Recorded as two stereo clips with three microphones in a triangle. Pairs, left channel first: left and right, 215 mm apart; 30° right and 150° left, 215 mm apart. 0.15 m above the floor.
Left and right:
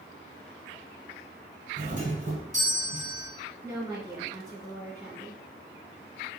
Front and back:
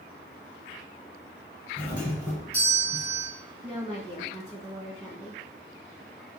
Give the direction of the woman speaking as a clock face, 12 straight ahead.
5 o'clock.